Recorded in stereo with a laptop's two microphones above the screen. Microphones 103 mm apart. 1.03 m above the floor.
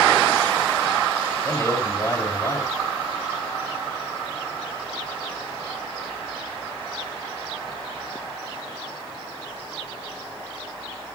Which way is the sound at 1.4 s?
25° left (ahead or behind).